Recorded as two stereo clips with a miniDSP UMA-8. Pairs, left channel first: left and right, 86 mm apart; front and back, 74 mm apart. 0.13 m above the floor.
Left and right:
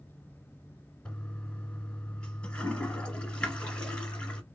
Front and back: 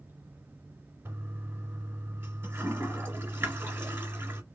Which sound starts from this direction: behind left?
A toilet flushing, at 1.1 s.